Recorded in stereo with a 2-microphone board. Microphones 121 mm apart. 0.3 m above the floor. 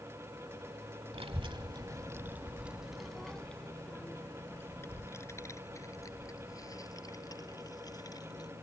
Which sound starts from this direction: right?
A child speaking, at 1.1 s.